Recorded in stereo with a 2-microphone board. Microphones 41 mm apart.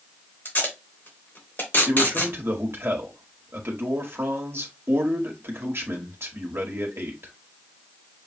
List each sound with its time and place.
0.5 s tape being pulled: 50° left (ahead or behind), 3 m
1.9 s a man speaking: 70° right (ahead or behind), 1.4 m